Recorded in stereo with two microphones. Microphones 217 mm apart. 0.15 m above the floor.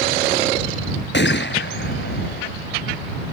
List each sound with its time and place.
1.1 s a gunshot: 55° left (ahead or behind)